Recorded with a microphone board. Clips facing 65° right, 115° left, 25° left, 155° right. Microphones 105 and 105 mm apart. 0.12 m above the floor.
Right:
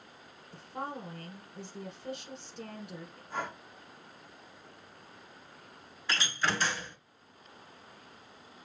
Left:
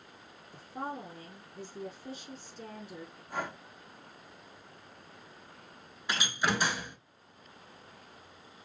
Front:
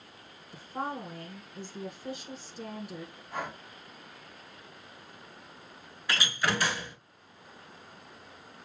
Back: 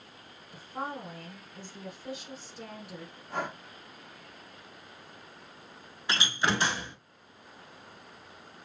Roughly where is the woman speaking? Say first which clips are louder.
Even, front 2 dB; ahead right.